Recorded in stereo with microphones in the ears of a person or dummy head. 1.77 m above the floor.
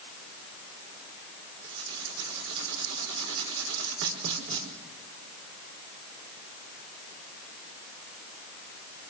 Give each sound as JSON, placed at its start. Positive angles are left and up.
{"t": 1.6, "sound": "writing", "side_deg": -80, "distance_m": 5.0}